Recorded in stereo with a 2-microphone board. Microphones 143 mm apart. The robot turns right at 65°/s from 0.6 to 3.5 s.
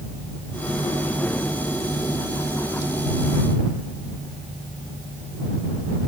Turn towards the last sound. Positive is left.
No sound to turn to.